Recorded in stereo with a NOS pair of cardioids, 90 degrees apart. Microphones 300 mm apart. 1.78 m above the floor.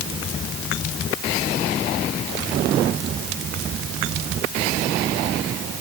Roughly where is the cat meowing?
I don't hear a cat meowing.